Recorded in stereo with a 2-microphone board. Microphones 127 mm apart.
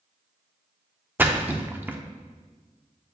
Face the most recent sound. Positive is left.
turn(degrees=-15)  # may be behind; listen again after turning